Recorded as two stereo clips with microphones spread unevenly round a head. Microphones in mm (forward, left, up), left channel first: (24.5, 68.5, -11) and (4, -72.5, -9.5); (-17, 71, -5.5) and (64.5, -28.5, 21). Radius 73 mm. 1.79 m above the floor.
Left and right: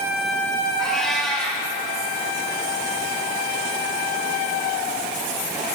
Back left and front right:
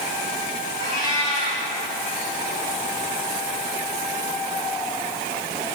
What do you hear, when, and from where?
0.8 s a cat meowing: 170° left, 6.5 m